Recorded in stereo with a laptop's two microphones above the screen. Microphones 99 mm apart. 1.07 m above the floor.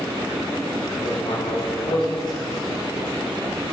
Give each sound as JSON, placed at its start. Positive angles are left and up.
{"t": 1.0, "sound": "writing", "side_deg": 55, "distance_m": 5.0}